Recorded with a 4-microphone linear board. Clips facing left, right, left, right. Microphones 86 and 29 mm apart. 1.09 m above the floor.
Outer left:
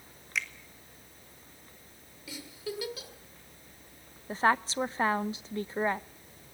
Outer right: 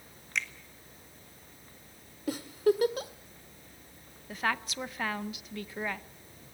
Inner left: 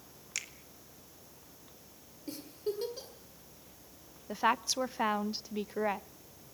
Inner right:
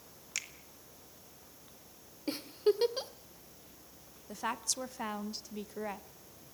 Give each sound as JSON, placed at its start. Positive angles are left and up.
{"t": 0.3, "sound": "a finger snap", "side_deg": 0, "distance_m": 1.8}
{"t": 2.3, "sound": "a giggle", "side_deg": -50, "distance_m": 1.5}
{"t": 4.3, "sound": "a woman speaking", "side_deg": 30, "distance_m": 0.6}